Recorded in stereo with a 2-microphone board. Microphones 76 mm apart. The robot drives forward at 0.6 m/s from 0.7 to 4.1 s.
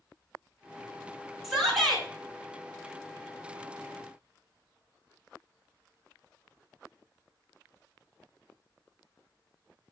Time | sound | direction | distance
1.4 | a shout | centre (ahead or behind) | 3 m